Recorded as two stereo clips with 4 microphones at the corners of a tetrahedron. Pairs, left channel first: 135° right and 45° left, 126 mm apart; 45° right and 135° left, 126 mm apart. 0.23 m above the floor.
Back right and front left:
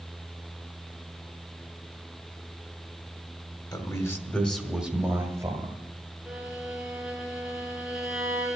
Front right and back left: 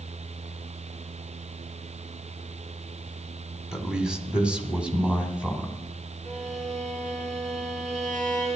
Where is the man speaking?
145° right, 1.6 m; by 5.7 s 65° left, 1.7 m.